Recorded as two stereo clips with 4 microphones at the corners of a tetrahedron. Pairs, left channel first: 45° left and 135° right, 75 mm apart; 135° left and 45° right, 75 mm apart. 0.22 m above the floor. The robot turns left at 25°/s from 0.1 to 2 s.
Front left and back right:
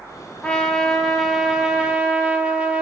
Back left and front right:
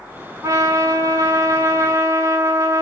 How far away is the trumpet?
About 0.6 m.